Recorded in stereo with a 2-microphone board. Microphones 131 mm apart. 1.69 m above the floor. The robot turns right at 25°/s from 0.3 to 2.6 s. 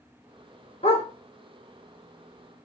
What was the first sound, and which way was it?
A dog barking, 55° left (ahead or behind).